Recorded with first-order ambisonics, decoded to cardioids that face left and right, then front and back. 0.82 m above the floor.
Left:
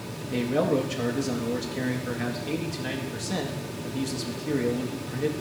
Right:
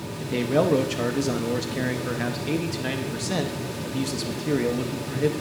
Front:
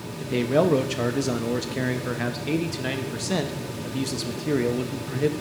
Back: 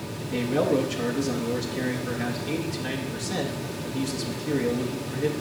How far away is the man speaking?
About 0.6 m.